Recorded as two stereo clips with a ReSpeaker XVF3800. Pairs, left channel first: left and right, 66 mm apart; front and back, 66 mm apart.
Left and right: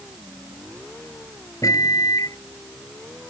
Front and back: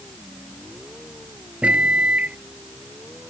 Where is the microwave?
110° left.